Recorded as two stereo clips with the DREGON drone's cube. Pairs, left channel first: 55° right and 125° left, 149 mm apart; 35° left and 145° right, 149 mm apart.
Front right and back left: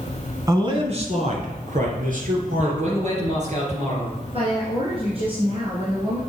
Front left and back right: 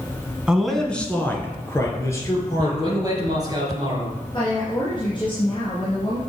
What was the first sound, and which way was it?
A man speaking, 135° left.